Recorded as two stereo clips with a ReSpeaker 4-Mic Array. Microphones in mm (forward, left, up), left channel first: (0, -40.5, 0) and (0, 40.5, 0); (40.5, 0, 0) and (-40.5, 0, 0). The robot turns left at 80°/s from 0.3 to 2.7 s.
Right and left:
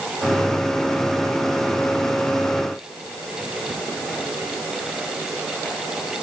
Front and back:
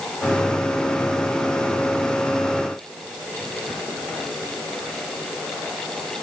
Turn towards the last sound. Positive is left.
No sound to turn to.